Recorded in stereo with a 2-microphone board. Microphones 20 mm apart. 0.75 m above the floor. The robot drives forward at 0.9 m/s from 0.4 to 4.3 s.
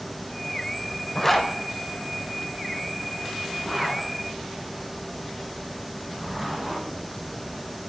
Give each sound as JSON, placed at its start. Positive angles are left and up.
{"t": 1.1, "sound": "a zipper", "side_deg": 20, "distance_m": 1.0}